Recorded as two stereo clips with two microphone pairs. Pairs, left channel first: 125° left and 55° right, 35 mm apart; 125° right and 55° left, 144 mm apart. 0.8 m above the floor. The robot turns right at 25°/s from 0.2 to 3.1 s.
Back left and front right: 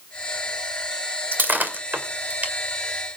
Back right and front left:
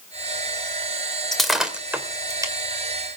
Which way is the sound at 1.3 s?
40° right.